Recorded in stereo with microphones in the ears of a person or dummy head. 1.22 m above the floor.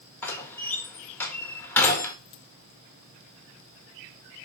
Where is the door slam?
10° left (ahead or behind), 1.4 m.